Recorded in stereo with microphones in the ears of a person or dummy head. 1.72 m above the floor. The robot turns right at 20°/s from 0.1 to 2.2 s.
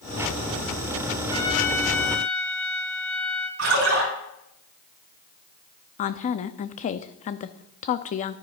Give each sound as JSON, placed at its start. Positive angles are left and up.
{"t": 1.3, "sound": "a trumpet", "side_deg": 25, "distance_m": 1.1}
{"t": 3.6, "sound": "a splash", "side_deg": -80, "distance_m": 5.5}
{"t": 6.0, "sound": "a woman speaking", "side_deg": 35, "distance_m": 0.6}